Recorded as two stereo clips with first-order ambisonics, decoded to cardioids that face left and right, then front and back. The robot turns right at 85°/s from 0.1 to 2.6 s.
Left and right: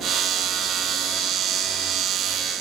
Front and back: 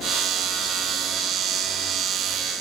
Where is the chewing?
No chewing in this recording.